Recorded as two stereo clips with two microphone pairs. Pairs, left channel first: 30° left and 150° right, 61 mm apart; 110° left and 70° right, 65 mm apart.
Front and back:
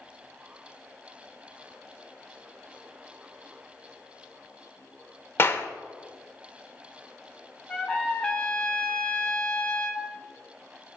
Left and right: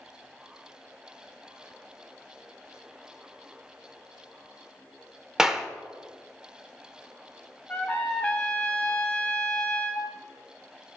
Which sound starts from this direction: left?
A trumpet, at 7.7 s.